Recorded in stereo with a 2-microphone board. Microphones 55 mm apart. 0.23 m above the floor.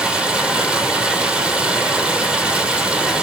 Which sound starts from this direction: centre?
Running water, at 0.0 s.